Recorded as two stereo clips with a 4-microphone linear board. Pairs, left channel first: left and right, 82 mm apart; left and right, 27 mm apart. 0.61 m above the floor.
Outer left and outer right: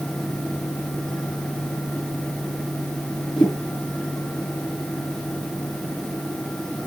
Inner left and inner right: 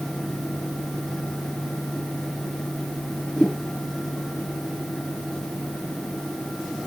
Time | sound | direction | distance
3.4 | a whoosh | 60° left (ahead or behind) | 4.5 m